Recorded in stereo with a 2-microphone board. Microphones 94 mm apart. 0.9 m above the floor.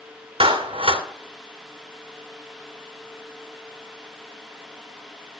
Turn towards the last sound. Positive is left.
turn(degrees=-80)